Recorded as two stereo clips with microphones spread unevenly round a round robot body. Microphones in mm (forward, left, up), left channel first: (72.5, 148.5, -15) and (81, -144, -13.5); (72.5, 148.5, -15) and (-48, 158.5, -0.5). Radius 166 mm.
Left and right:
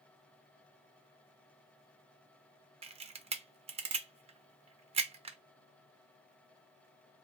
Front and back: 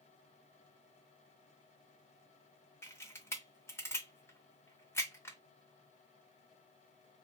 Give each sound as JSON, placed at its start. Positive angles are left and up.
{"t": 2.8, "sound": "a camera shutter", "azimuth_deg": -35, "distance_m": 0.5}